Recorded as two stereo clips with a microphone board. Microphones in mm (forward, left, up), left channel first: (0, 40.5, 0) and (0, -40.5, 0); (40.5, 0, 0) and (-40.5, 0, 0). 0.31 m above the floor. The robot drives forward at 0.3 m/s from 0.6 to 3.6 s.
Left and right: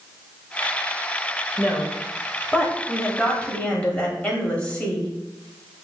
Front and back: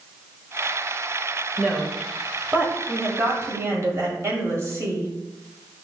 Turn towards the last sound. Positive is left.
turn(degrees=155)